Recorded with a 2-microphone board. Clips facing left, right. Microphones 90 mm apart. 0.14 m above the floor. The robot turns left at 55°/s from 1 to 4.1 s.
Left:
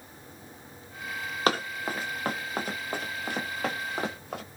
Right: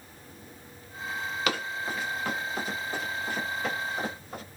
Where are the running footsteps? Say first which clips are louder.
Left 6 dB; 40° left (ahead or behind), 0.8 m; by 4.4 s 85° left, 1.4 m.